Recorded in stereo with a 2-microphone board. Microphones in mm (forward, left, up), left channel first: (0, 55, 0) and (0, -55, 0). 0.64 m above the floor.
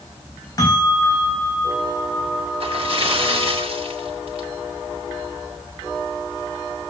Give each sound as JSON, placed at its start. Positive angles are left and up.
{"t": 0.6, "sound": "a bell", "side_deg": 35, "distance_m": 4.5}
{"t": 2.6, "sound": "a splash", "side_deg": -60, "distance_m": 1.7}